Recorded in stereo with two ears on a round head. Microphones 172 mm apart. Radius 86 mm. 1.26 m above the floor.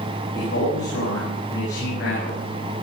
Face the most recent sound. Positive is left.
turn(degrees=60)  # may be behind; listen again after turning